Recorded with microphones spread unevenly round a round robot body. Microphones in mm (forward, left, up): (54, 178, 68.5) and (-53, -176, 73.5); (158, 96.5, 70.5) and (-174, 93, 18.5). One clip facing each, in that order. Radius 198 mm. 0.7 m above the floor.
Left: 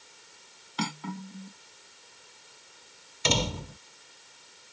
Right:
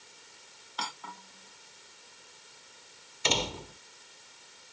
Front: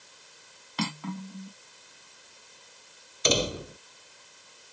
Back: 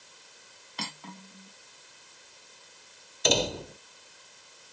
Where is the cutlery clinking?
15° left.